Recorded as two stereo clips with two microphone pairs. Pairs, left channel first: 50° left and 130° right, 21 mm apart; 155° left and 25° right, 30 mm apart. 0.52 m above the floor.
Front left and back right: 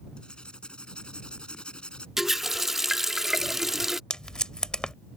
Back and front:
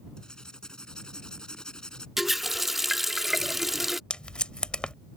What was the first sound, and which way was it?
Writing, 90° left.